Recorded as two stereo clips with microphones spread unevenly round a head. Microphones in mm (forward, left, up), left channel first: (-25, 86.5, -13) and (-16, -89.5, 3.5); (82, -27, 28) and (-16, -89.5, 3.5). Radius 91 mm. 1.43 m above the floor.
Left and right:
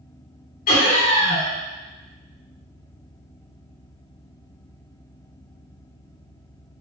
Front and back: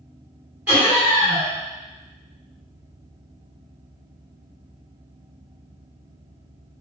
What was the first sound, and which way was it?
Laughter, 130° left.